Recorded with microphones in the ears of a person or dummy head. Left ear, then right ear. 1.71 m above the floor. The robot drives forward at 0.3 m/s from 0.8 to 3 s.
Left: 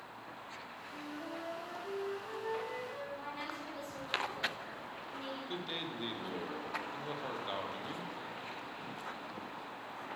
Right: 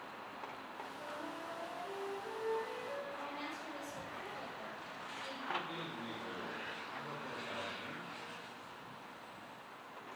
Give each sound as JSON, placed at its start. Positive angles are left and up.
{"t": 0.9, "sound": "a flute", "side_deg": 5, "distance_m": 4.0}
{"t": 3.1, "sound": "a woman speaking", "side_deg": 25, "distance_m": 3.5}
{"t": 5.5, "sound": "a man speaking", "side_deg": 50, "distance_m": 1.2}